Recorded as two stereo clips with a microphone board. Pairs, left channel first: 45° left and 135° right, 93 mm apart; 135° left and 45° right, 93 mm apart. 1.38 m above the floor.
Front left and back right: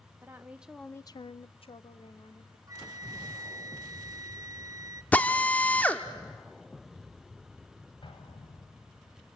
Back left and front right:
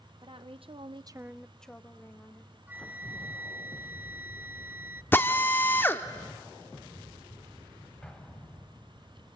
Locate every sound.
0.2 s a woman speaking: 70° right, 1.1 m; by 2.6 s 70° left, 2.0 m
2.7 s a flute: 105° right, 0.5 m
5.1 s a drill: 100° left, 1.0 m
8.0 s an explosion: 55° left, 2.5 m